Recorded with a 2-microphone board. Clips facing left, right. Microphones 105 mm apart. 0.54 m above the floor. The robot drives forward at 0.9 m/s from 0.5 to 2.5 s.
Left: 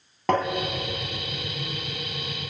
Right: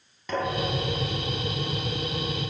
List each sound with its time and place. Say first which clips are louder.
0.3 s tapping: left 5 dB; 60° left (ahead or behind), 2.5 m